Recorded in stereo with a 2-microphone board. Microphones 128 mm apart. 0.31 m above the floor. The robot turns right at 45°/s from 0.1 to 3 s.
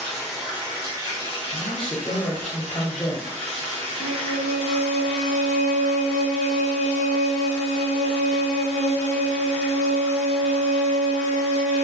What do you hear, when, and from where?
0.0 s running water: 170° left, 1.2 m; by 11.8 s 60° right, 1.2 m
1.5 s a woman speaking: 80° left, 1.1 m; by 3.3 s 150° left, 1.1 m
4.0 s a violin: 80° left, 0.6 m